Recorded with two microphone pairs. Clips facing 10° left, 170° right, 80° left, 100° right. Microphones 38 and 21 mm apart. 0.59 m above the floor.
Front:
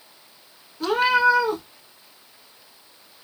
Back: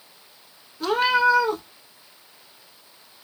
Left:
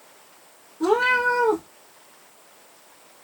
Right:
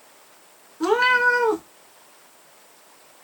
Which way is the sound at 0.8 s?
75° right.